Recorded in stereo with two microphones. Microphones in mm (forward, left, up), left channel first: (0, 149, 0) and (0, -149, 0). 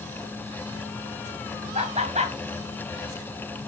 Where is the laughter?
20° right (ahead or behind), 2.5 m.